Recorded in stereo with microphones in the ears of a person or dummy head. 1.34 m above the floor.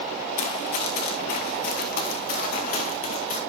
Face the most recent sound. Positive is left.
turn(degrees=40)  # may be behind; listen again after turning